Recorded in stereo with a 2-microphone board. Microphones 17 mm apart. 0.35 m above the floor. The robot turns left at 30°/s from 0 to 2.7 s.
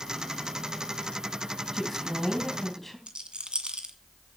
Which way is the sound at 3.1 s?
70° right (ahead or behind).